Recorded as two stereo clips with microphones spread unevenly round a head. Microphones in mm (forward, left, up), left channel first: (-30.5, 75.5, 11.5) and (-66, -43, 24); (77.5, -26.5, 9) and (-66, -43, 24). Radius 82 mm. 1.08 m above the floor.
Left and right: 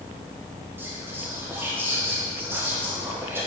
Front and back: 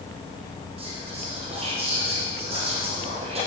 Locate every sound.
0.8 s whispering: 175° right, 0.8 m